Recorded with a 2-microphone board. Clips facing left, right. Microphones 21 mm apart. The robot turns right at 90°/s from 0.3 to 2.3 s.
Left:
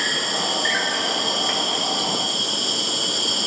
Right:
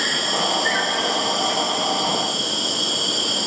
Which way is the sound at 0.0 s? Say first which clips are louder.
Right 1 dB; 10° right.